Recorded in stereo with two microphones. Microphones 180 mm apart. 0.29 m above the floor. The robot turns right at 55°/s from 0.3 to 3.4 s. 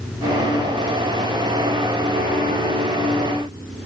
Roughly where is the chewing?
I don't hear chewing.